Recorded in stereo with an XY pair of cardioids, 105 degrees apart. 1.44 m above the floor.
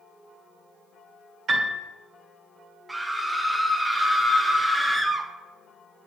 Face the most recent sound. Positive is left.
turn(degrees=-10)